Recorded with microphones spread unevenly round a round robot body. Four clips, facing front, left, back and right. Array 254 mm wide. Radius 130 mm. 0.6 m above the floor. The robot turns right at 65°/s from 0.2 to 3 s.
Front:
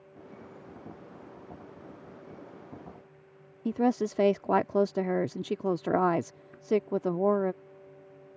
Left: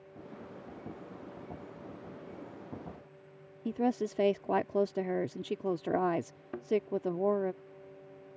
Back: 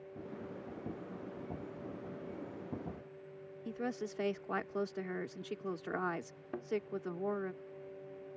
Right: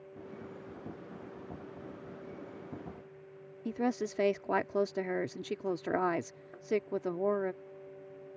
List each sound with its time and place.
3.6 s a woman speaking: 10° left
6.5 s a thud: 110° left